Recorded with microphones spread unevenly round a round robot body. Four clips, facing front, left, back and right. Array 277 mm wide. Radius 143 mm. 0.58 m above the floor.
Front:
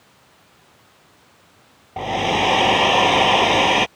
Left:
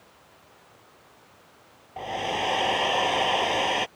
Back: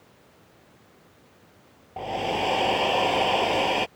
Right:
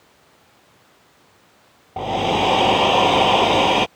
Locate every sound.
2.0 s a hair dryer: 50° right